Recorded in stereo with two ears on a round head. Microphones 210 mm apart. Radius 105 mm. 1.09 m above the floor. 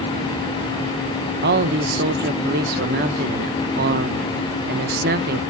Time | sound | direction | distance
1.4 | a man speaking | 40° right (ahead or behind) | 0.8 m